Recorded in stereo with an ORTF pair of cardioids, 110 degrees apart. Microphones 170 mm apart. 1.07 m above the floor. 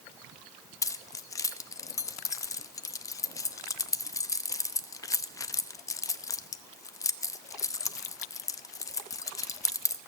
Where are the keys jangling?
20° left, 0.6 m.